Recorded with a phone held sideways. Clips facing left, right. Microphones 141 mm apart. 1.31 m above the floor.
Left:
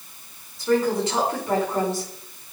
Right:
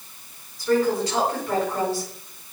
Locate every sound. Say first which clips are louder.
0.6 s a woman speaking: even; 20° left (ahead or behind), 5.5 m